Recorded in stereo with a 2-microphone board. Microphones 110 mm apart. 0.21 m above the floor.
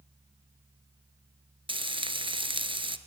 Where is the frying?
50° right (ahead or behind), 1.2 m.